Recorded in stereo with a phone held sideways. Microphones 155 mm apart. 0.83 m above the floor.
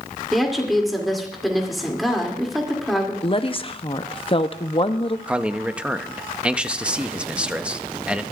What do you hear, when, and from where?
0.3 s a woman speaking: centre (ahead or behind), 2.5 m
3.2 s a woman speaking: 35° left (ahead or behind), 0.7 m
5.3 s a man speaking: 5° right (ahead or behind), 0.7 m